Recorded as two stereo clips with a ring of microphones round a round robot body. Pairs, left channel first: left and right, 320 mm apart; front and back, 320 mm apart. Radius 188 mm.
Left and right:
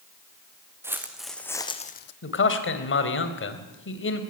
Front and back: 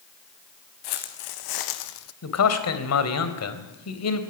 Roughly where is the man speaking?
Ahead left.